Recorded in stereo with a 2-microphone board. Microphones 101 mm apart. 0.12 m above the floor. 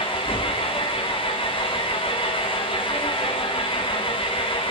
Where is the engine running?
55° left (ahead or behind), 2.5 m.